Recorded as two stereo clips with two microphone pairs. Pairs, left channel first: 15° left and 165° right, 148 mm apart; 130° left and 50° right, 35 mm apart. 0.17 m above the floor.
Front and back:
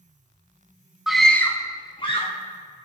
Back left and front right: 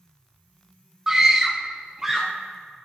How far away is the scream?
About 1.1 m.